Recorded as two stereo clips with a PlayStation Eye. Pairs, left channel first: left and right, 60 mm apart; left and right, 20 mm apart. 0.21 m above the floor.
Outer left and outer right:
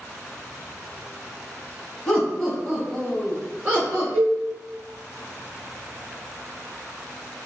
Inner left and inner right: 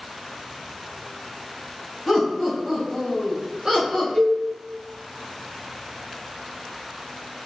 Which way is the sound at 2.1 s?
15° left (ahead or behind).